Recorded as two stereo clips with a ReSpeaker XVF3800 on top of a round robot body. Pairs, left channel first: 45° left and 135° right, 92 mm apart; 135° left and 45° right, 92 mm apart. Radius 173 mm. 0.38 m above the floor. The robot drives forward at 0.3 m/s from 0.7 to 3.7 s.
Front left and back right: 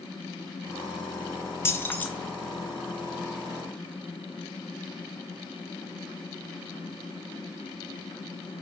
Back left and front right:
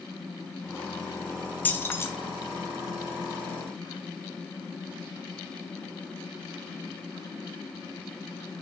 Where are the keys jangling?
80° left, 0.7 m; by 2.1 s 100° left, 0.7 m.